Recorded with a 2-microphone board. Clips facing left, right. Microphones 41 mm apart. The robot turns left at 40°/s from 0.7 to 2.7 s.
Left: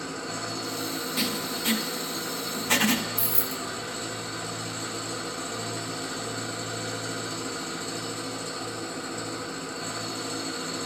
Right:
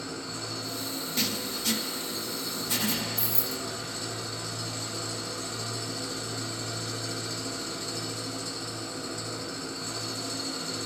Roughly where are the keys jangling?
Right.